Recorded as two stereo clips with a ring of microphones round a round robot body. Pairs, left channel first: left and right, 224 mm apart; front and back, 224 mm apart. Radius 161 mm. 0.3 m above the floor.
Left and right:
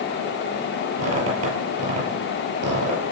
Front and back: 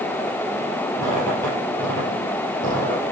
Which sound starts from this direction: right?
A squeak, at 1.0 s.